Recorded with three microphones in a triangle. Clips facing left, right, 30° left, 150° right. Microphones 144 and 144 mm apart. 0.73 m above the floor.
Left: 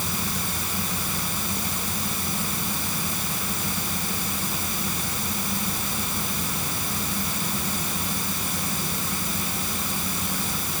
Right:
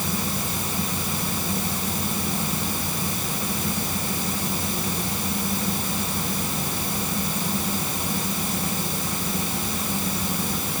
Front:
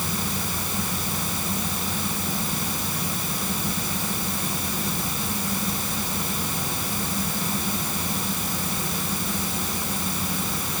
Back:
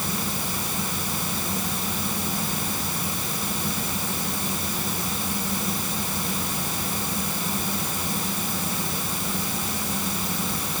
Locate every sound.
Only background noise.